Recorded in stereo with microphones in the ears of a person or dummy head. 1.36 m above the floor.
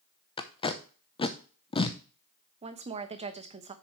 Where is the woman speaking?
35° right (ahead or behind), 0.9 m.